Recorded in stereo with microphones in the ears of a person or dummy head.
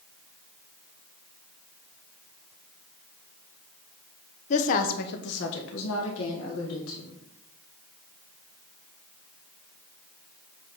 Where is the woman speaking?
35° left (ahead or behind), 0.7 m; by 7.1 s 80° left, 2 m.